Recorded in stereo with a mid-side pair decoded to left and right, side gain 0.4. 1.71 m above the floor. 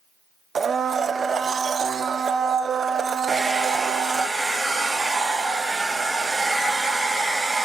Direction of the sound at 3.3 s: 20° right.